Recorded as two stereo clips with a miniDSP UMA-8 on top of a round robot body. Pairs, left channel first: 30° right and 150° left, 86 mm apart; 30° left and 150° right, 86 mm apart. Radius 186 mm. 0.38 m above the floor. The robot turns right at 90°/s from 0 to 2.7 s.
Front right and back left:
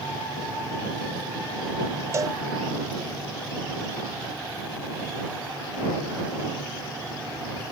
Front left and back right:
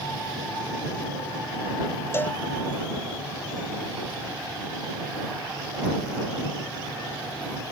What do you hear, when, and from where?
2.1 s a cowbell: 90° left; by 2.4 s 115° left